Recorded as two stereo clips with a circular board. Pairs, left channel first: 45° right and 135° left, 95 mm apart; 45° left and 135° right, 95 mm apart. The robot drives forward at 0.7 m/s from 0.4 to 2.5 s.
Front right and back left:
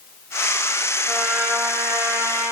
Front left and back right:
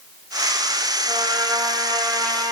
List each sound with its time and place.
1.1 s a trumpet: 140° right, 0.8 m; by 2.5 s 165° right, 1.6 m